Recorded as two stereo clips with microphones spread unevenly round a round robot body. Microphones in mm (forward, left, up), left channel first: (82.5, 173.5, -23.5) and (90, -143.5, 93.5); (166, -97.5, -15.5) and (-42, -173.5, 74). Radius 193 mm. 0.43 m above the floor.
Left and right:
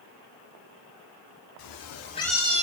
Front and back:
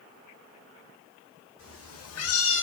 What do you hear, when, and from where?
1.6 s a cat meowing: 75° left, 0.9 m; by 2.6 s 20° right, 1.0 m